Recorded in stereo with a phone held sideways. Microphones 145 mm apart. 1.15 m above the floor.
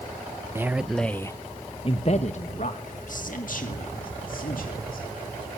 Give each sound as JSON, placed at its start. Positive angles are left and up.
{"t": 0.6, "sound": "a man speaking", "side_deg": -15, "distance_m": 0.9}